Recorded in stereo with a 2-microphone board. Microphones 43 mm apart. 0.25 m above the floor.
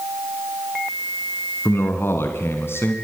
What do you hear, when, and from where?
1.6 s a man speaking: 65° left (ahead or behind), 2.5 m; by 3.0 s 55° left (ahead or behind), 2 m